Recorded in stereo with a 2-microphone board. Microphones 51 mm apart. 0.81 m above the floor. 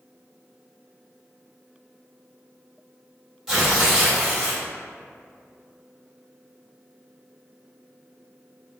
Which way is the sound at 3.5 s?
10° right (ahead or behind).